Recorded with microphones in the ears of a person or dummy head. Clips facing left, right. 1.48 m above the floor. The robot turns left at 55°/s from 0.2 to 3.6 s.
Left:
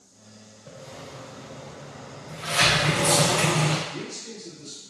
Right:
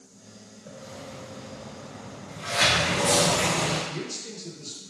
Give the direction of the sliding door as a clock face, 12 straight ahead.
8 o'clock.